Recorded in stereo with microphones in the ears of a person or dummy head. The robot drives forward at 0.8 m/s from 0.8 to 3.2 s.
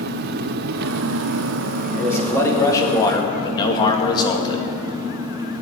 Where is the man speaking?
20° left (ahead or behind), 3 m; by 4.6 s 30° left (ahead or behind), 2 m.